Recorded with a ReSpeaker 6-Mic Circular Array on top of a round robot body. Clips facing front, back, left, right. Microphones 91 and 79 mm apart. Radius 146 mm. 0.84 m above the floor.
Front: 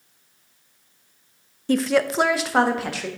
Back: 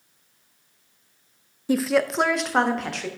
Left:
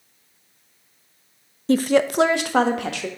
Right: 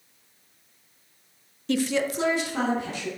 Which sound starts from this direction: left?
A woman speaking, at 1.7 s.